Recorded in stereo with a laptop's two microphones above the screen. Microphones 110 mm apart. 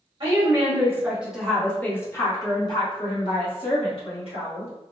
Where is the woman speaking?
40° right (ahead or behind), 1.0 m; by 4.7 s 65° left (ahead or behind), 1.9 m.